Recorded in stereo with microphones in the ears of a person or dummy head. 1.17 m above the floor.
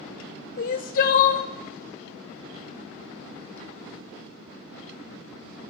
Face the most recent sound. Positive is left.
turn(degrees=45)  # may be behind; listen again after turning